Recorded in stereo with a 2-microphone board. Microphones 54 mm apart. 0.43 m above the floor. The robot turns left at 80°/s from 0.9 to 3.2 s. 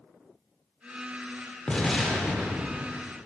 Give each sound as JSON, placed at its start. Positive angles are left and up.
{"t": 1.7, "sound": "an explosion", "azimuth_deg": 35, "distance_m": 0.6}